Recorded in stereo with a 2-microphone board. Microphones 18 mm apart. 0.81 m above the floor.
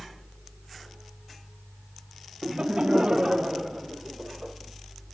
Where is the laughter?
55° right (ahead or behind), 1.0 m; by 4.5 s 40° right (ahead or behind), 3 m.